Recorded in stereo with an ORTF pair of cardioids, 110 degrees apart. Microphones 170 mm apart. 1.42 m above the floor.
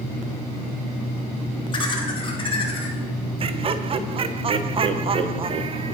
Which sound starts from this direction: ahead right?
Laughter, at 3.4 s.